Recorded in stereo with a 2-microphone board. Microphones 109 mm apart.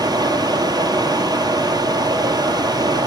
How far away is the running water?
About 1.6 m.